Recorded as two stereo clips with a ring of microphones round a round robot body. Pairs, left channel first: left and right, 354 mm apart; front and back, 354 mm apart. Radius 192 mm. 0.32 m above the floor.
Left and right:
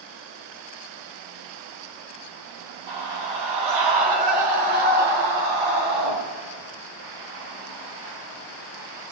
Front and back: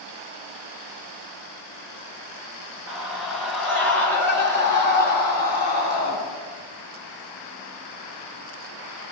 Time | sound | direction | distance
2.9 | a scream | 95° right | 2.5 m